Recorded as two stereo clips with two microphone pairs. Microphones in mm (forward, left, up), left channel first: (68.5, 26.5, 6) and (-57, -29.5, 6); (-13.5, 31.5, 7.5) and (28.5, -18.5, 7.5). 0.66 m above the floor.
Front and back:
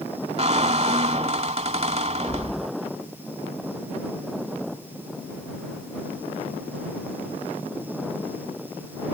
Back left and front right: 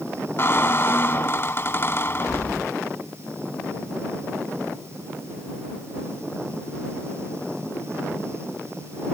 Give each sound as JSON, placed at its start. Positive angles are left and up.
{"t": 0.4, "sound": "a squeak", "azimuth_deg": 175}